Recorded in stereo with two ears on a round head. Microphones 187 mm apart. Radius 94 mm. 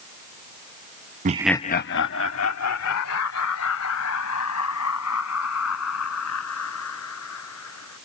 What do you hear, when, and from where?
1.2 s laughter: 40° right (ahead or behind); by 8.0 s 85° left